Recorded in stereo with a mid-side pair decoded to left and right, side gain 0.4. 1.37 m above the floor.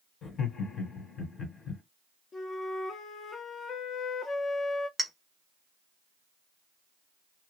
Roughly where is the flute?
Ahead left.